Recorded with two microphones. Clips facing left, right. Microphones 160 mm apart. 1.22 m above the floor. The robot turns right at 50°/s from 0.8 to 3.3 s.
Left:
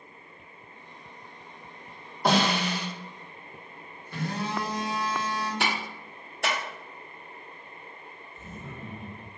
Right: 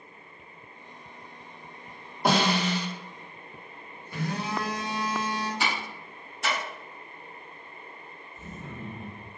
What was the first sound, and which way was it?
A snare drum, 5° right (ahead or behind).